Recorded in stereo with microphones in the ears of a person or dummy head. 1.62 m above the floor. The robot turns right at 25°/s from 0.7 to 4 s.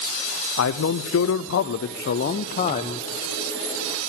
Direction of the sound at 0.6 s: 85° left.